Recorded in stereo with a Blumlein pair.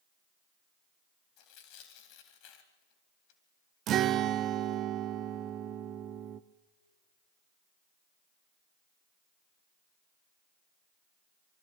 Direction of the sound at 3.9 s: 30° right.